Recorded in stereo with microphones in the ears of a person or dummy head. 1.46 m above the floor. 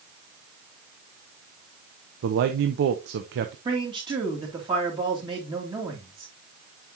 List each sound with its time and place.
2.2 s a man speaking: 50° right (ahead or behind), 0.7 m
3.6 s a man speaking: 25° right (ahead or behind), 2.5 m